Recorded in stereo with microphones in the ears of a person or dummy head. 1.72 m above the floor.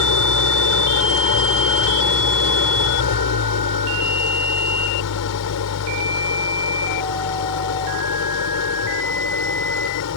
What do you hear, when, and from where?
0.0 s an engine running: 75° left (ahead or behind)